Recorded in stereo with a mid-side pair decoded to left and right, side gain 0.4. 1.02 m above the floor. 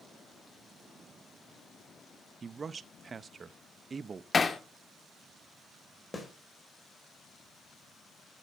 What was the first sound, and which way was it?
A man speaking, 40° right.